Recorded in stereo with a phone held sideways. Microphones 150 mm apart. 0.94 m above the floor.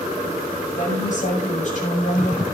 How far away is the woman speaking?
About 6 m.